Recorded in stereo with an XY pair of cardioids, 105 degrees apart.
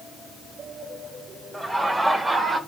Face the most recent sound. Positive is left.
turn(degrees=-20)